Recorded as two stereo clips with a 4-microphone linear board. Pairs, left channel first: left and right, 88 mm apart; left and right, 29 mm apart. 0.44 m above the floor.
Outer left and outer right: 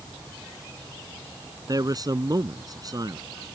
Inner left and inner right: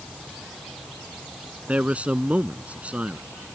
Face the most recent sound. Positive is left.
turn(degrees=-45)  # may be behind; listen again after turning